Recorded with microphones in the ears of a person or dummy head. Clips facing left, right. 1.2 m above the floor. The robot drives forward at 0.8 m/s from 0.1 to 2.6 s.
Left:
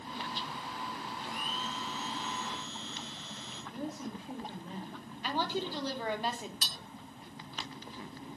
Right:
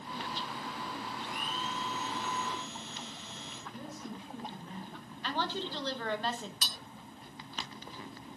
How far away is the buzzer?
I don't hear a buzzer.